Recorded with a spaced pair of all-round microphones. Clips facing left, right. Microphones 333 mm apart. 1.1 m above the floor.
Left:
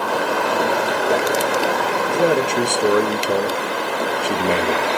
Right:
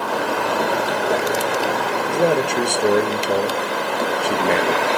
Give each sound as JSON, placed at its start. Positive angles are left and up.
{"t": 2.1, "sound": "a man speaking", "side_deg": 10, "distance_m": 1.2}